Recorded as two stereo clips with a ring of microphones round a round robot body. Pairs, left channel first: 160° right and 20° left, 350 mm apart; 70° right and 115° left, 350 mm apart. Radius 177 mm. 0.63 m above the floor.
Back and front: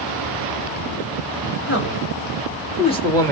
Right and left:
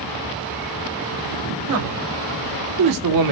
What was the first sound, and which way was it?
A man speaking, 145° left.